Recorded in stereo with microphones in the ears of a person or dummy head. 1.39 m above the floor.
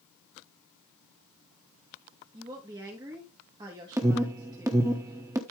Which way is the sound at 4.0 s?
20° right (ahead or behind).